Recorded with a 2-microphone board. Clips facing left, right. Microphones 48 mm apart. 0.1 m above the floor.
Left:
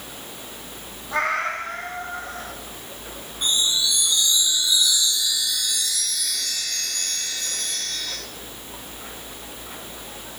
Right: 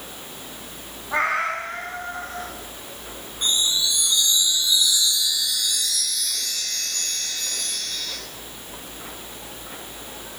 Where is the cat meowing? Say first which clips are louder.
Right 1 dB; 15° right (ahead or behind), 3.5 m; by 2.5 s centre (ahead or behind), 5 m.